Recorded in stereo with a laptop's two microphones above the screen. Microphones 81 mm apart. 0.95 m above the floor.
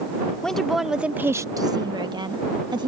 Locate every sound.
0.4 s a woman speaking: 10° left (ahead or behind); by 2.9 s 65° right (ahead or behind)